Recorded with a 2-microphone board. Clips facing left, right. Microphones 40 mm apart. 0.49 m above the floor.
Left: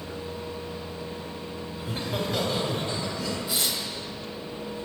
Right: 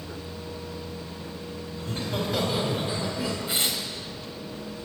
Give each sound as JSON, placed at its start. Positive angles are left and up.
{"t": 1.8, "sound": "laughter", "side_deg": 15, "distance_m": 1.6}
{"t": 3.5, "sound": "tearing paper", "side_deg": -40, "distance_m": 1.1}